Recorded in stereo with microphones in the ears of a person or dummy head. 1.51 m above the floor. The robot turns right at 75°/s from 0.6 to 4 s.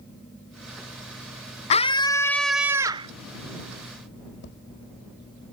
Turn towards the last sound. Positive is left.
turn(degrees=60)  # may be behind; listen again after turning